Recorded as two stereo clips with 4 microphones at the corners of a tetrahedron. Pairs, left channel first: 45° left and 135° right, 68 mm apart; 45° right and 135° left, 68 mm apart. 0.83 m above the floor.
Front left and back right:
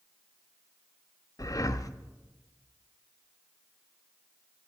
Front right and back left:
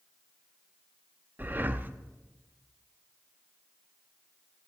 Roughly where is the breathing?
Left.